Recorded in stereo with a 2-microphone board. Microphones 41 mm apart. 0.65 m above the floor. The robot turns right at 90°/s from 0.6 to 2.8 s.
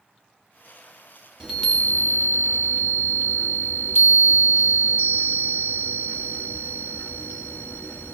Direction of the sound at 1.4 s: 15° right.